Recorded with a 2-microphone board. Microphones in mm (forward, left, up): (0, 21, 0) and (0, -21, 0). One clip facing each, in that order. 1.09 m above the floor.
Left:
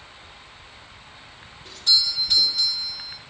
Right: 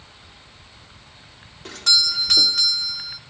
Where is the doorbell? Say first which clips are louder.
Right 2 dB; 80° right, 3.5 m.